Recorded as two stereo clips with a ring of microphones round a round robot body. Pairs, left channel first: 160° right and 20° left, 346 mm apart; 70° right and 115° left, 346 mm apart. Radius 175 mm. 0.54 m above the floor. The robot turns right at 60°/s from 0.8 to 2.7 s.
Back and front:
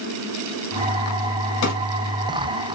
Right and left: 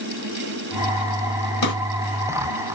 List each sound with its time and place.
1.6 s a drawer: 130° right, 2 m; by 1.7 s 125° right, 2 m